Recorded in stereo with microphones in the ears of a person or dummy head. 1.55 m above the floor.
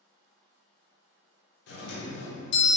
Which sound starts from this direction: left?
A doorbell, at 1.7 s.